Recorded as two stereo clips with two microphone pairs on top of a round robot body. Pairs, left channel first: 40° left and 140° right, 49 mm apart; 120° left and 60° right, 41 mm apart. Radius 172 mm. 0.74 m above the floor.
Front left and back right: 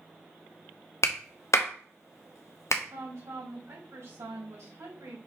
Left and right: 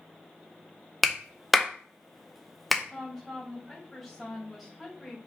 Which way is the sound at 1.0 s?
30° left.